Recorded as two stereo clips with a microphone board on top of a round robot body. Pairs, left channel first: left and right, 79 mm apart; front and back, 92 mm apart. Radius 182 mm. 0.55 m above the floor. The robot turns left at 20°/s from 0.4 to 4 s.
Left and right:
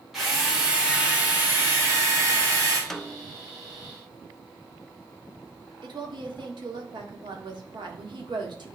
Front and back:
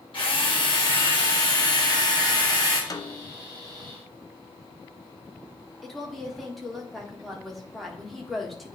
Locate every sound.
0.1 s a drill: 5° right, 2.5 m; by 2.8 s 50° right, 2.5 m
2.9 s a snare drum: 10° left, 0.8 m; by 3.3 s straight ahead, 0.8 m
5.8 s a woman speaking: 90° right, 1.7 m